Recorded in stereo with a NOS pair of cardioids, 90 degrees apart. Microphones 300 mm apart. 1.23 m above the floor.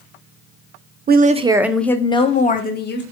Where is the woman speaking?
35° right, 0.6 m; by 3.0 s 40° left, 1.0 m.